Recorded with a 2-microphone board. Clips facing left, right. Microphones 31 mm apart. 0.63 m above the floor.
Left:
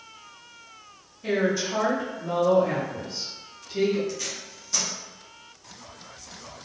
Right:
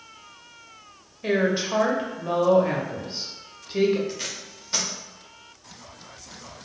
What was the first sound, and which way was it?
A woman speaking, 40° right (ahead or behind).